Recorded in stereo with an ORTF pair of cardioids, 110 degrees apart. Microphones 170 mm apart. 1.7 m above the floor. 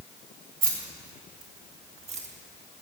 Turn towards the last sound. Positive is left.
turn(degrees=-40)